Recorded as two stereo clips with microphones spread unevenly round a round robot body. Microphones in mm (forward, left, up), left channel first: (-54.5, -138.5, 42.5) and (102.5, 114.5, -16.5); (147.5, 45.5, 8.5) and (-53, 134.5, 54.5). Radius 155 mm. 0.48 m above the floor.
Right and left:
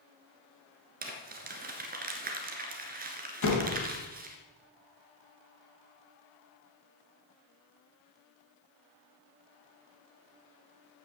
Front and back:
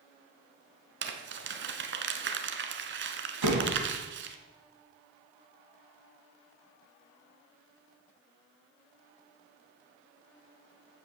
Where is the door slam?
175° right, 2.5 m.